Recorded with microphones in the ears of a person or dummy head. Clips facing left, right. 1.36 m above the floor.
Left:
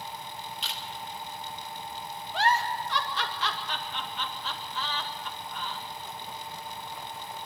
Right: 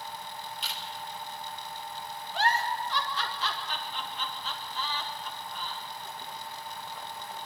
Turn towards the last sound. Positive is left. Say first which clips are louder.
# left 2 dB
turn(degrees=65)  # may be behind; listen again after turning